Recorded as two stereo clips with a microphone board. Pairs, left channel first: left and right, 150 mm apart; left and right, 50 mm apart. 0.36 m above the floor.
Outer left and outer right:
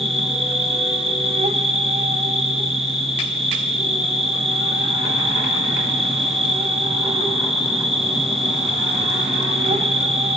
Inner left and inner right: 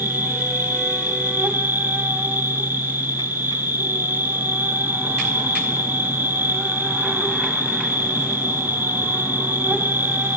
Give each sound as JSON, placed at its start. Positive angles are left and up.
{"t": 0.0, "sound": "an insect", "side_deg": -40, "distance_m": 1.5}